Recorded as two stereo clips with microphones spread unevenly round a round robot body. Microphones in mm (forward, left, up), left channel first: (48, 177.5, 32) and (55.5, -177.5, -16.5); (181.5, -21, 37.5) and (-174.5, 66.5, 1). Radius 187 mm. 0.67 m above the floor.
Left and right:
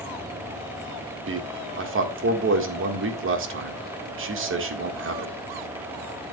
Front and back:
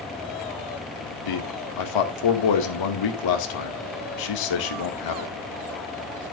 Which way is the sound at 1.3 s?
40° right.